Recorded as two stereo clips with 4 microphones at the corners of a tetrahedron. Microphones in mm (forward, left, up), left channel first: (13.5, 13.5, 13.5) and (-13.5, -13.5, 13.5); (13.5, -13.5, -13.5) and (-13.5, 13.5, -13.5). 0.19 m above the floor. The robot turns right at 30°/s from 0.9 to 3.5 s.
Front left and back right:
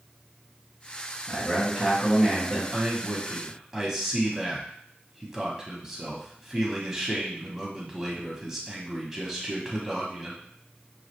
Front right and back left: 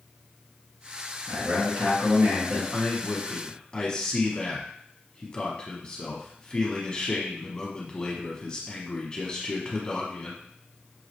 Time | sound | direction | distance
1.3 | a man speaking | 90° left | 2 m
2.7 | a man speaking | 95° right | 1.1 m